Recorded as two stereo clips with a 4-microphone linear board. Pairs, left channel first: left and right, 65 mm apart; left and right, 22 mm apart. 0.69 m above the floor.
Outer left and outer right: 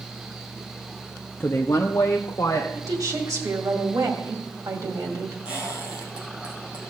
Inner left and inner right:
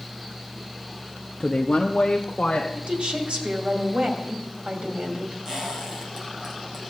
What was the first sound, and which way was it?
A woman speaking, 35° left (ahead or behind).